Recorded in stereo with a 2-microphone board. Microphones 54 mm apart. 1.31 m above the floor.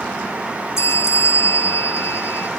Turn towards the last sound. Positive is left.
turn(degrees=60)  # may be behind; listen again after turning